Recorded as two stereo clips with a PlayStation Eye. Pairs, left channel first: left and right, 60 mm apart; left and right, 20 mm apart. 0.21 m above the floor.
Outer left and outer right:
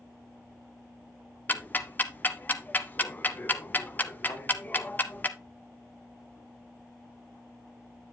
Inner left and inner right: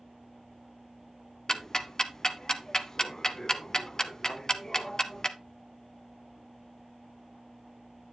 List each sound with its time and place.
1.5 s ticking: 30° left (ahead or behind), 0.7 m
4.3 s a thud: 75° left (ahead or behind), 4.5 m